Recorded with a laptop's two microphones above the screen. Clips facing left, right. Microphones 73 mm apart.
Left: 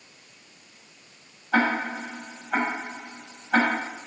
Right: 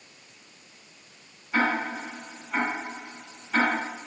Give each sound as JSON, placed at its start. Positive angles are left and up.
{"t": 1.5, "sound": "ticking", "side_deg": 75, "distance_m": 4.5}